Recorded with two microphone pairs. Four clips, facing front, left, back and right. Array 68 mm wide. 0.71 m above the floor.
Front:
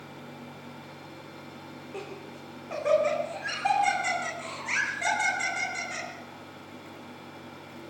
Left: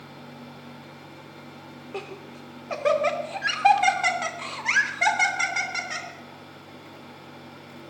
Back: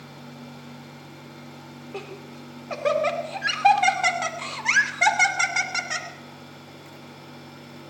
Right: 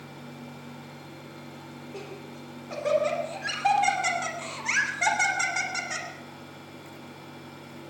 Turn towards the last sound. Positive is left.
turn(degrees=175)